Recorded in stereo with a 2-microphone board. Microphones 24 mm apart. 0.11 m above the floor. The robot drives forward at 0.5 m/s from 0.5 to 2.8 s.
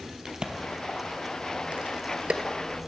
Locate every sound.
0.2 s a crack: 35° right (ahead or behind), 1.2 m; by 2.4 s 50° right (ahead or behind), 0.9 m